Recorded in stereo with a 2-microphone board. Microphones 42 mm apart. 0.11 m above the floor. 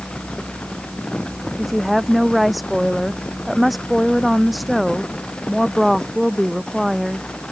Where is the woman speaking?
Centre (ahead or behind).